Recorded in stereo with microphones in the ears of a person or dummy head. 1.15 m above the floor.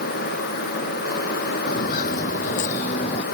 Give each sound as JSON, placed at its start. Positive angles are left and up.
{"t": 1.7, "sound": "footsteps", "side_deg": 55}